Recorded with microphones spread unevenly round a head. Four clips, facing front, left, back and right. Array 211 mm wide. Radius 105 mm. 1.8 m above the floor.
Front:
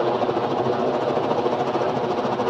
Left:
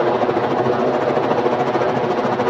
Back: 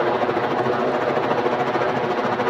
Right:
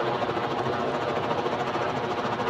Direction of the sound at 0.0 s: 95° left.